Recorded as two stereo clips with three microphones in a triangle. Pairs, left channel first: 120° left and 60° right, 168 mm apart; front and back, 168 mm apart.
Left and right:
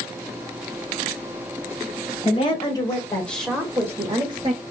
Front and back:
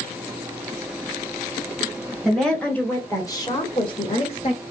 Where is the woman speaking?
90° left, 1.4 m; by 4.6 s 25° right, 1.3 m.